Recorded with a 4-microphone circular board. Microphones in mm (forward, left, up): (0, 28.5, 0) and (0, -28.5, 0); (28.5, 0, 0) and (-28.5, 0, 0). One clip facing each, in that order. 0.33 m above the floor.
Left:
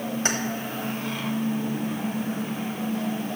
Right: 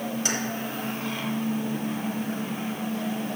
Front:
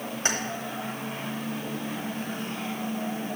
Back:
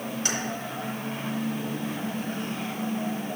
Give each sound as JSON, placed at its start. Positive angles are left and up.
{"t": 0.2, "sound": "keys jangling", "azimuth_deg": 50, "distance_m": 1.2}